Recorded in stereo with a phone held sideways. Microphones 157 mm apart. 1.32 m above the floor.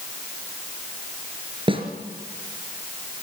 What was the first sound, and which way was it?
A snare drum, 35° right (ahead or behind).